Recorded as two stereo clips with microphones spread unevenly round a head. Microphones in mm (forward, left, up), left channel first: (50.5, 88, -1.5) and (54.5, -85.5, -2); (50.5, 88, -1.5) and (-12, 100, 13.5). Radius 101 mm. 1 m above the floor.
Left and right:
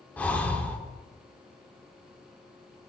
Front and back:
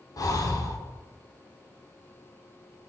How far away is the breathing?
About 2.5 m.